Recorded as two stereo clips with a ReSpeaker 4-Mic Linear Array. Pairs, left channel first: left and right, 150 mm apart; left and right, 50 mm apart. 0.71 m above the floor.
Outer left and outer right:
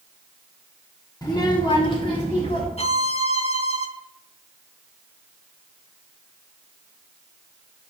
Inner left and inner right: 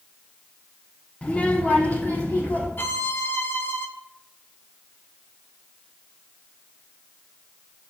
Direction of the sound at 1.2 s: 30° left (ahead or behind).